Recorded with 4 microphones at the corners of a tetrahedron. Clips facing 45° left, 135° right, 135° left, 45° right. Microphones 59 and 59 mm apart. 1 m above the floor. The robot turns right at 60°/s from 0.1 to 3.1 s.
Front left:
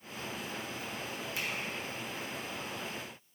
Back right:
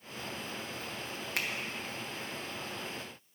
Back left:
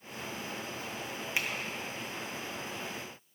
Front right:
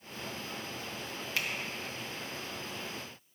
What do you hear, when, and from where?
1.4 s a finger snap: 155° right, 0.6 m; by 1.5 s 150° right, 0.6 m